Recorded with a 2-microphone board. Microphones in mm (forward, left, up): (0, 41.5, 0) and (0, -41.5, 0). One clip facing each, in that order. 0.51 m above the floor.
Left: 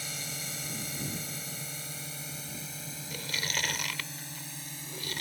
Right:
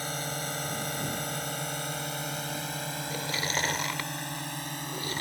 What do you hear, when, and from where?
0.0 s a drone: 50° right (ahead or behind); by 5.2 s 60° right (ahead or behind)
3.1 s chewing: 30° right (ahead or behind)